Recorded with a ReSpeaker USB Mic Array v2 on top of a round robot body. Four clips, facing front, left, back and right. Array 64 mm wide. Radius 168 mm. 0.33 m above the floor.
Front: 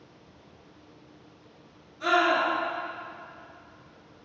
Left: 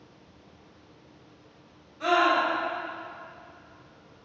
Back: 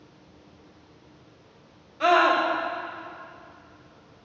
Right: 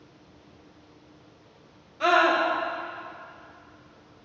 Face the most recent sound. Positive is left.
turn(degrees=-150)